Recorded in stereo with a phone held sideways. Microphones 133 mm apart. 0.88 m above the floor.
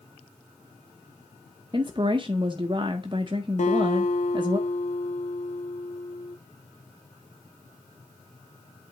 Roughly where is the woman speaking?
Right.